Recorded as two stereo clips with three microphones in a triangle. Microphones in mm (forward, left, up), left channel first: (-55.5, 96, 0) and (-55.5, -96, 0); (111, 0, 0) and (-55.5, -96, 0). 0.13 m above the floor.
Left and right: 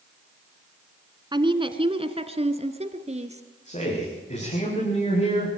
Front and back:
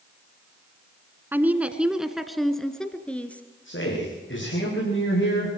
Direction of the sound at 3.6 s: 40° left.